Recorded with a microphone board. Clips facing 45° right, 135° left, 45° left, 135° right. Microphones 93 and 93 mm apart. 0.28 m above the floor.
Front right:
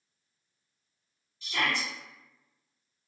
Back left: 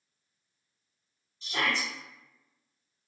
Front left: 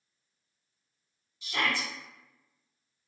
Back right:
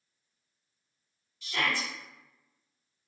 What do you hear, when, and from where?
1.4 s a shout: 105° left, 1.6 m